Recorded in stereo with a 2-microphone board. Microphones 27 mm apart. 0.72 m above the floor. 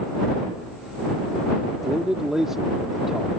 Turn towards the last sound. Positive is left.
turn(degrees=-20)  # may be behind; listen again after turning